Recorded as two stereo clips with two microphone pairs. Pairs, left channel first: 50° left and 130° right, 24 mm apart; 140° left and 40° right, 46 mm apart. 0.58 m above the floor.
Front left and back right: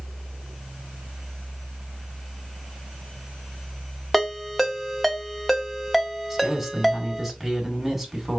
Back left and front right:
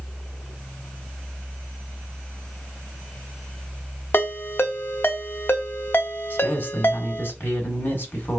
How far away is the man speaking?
About 1.6 m.